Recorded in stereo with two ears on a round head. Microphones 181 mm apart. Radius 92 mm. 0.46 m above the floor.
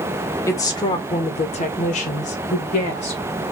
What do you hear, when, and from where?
0.5 s a woman speaking: 15° left (ahead or behind), 1.4 m; by 3.4 s 35° left (ahead or behind), 2 m